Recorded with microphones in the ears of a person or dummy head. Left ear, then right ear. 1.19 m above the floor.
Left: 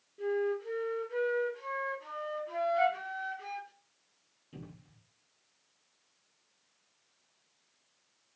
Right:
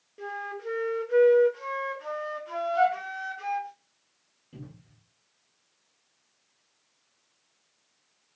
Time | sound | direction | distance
0.2 | a flute | 35° right (ahead or behind) | 0.6 m
2.8 | a flute | 65° right (ahead or behind) | 2.5 m
4.5 | a cupboard door | 5° left (ahead or behind) | 1.6 m